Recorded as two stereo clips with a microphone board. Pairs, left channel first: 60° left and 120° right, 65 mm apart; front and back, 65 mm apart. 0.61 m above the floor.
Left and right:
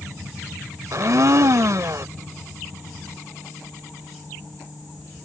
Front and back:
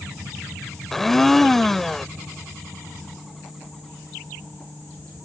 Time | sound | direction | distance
0.9 | a blender | 85° right | ?